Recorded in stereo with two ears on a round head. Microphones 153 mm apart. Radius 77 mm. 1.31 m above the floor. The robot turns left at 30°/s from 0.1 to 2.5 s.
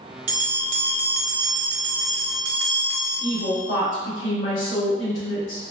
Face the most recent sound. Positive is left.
turn(degrees=80)